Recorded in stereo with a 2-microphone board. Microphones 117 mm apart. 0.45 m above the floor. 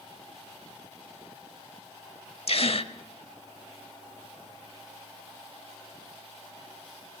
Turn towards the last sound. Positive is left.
turn(degrees=55)  # may be behind; listen again after turning